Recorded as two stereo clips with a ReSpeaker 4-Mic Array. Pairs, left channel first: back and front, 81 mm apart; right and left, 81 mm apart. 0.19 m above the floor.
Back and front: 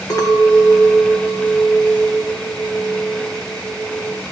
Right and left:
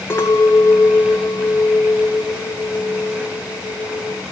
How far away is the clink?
About 1.9 m.